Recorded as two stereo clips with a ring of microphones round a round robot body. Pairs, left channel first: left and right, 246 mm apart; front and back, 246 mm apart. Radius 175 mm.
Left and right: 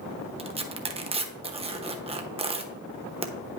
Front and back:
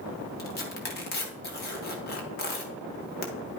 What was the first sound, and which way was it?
Tearing paper, 30° right.